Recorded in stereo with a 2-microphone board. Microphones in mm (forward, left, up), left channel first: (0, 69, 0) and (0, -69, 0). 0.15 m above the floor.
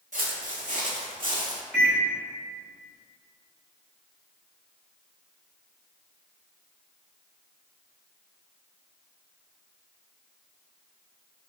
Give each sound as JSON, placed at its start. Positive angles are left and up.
{"t": 0.1, "sound": "footsteps", "side_deg": -75, "distance_m": 0.7}
{"t": 1.7, "sound": "a microwave", "side_deg": 5, "distance_m": 1.2}